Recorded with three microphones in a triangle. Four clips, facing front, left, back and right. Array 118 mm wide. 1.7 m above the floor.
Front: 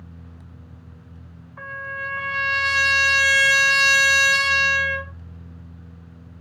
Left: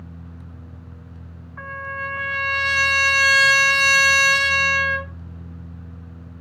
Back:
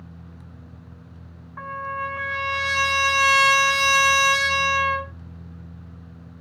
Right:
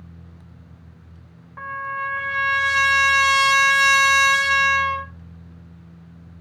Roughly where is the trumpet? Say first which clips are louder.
Right 3 dB, back 3 dB; behind right.